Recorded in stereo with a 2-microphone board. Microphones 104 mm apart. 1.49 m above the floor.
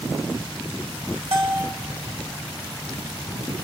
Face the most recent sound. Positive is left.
turn(degrees=-65)  # may be behind; listen again after turning